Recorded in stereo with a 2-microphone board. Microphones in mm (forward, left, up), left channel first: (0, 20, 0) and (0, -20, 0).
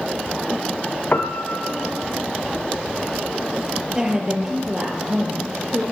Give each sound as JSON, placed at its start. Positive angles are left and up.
{"t": 1.1, "sound": "a piano", "side_deg": 45, "distance_m": 1.0}
{"t": 4.0, "sound": "a woman speaking", "side_deg": -15, "distance_m": 6.0}